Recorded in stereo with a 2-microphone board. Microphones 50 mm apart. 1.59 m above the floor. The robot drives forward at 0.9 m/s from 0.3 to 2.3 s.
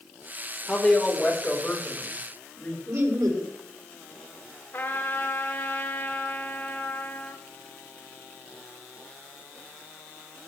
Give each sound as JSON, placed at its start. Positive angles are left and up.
{"t": 0.7, "sound": "a woman speaking", "side_deg": 10, "distance_m": 4.5}
{"t": 2.9, "sound": "laughter", "side_deg": -80, "distance_m": 4.0}
{"t": 4.7, "sound": "a trumpet", "side_deg": 35, "distance_m": 2.5}